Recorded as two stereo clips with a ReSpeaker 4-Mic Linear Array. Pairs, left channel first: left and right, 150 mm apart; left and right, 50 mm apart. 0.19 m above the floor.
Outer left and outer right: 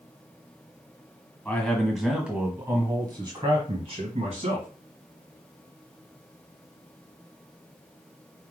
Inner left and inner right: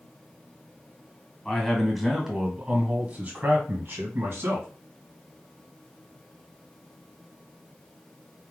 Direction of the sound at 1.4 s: 10° left (ahead or behind).